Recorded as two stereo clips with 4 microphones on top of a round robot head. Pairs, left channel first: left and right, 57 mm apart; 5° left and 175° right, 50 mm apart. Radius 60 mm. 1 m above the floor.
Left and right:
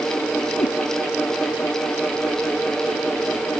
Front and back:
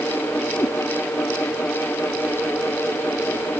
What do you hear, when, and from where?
0.6 s a cat meowing: 60° left